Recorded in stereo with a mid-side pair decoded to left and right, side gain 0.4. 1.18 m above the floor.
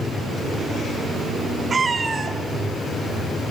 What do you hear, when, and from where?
1.7 s a cat meowing: 35° right, 1.1 m